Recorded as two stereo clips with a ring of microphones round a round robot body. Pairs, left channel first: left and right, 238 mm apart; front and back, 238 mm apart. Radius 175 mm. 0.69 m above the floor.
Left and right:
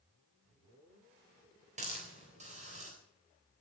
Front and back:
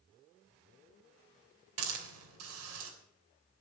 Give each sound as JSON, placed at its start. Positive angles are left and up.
{"t": 1.8, "sound": "a hiss", "azimuth_deg": -160, "distance_m": 3.5}